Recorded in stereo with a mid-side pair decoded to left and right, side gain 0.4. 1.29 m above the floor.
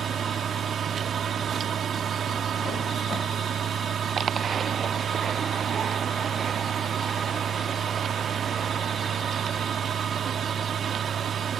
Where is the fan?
60° right.